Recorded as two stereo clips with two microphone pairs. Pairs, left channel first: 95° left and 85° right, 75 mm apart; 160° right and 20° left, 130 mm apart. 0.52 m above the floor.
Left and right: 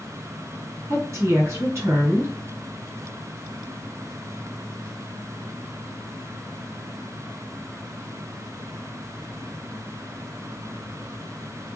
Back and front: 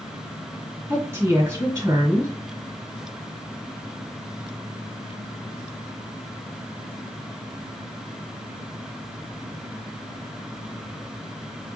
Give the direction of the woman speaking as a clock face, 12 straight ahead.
1 o'clock.